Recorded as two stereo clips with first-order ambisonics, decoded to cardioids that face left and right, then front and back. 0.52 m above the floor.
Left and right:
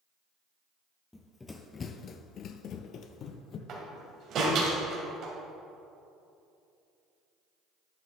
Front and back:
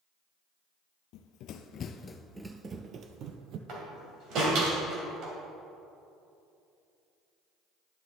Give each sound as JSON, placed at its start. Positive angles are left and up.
{"t": 1.1, "sound": "running footsteps", "azimuth_deg": 10, "distance_m": 0.8}
{"t": 3.7, "sound": "a door slam", "azimuth_deg": -140, "distance_m": 2.5}